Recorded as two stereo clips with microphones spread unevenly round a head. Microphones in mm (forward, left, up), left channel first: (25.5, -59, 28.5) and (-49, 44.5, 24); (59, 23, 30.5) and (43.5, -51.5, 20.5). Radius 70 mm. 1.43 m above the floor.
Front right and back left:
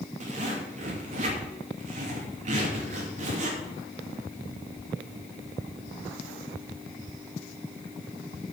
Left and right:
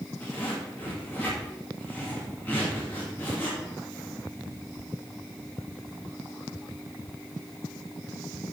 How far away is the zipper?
About 2.5 m.